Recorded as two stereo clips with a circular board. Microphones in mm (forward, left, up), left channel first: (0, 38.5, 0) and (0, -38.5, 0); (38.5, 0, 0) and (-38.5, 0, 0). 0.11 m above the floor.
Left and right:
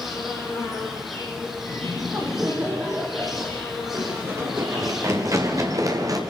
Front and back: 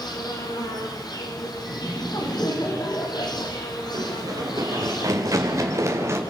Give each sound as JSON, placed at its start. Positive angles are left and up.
{"t": 0.0, "sound": "an insect", "azimuth_deg": 0, "distance_m": 7.5}
{"t": 1.7, "sound": "laughter", "azimuth_deg": -30, "distance_m": 5.5}
{"t": 3.9, "sound": "running footsteps", "azimuth_deg": -145, "distance_m": 6.5}